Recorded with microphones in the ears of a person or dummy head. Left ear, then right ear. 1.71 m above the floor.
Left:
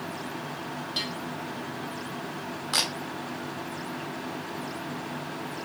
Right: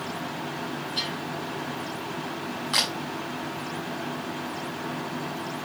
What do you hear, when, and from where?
1.0 s a bell: 40° left (ahead or behind), 3.5 m
2.7 s a camera shutter: 5° left (ahead or behind), 2.0 m